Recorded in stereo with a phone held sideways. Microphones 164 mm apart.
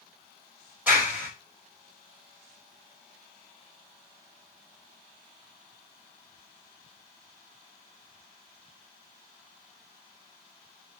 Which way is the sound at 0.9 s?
10° right (ahead or behind).